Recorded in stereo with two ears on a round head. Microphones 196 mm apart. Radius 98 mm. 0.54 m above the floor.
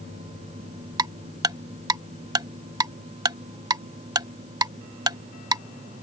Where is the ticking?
20° right (ahead or behind).